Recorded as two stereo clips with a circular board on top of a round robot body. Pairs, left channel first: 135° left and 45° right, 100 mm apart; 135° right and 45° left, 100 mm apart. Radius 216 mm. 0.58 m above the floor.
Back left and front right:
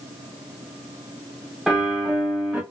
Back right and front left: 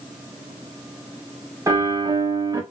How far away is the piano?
About 1.2 m.